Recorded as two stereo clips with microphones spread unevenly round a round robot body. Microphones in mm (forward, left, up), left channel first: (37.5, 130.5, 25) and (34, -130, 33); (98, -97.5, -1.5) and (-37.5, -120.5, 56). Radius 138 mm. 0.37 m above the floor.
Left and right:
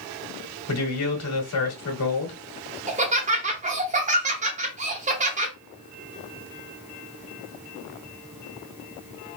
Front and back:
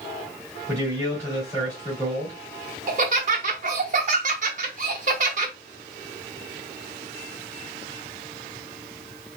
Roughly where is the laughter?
Behind right.